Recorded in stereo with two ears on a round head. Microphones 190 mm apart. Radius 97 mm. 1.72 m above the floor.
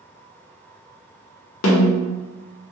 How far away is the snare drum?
About 0.6 m.